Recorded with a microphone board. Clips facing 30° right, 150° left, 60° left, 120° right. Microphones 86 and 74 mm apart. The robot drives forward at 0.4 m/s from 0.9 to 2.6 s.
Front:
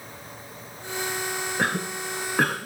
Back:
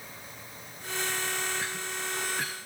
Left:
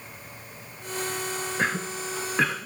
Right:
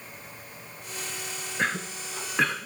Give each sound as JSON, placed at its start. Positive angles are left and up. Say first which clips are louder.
{"t": 1.6, "sound": "a cough", "louder": "front 9 dB, even", "azimuth_deg": -25}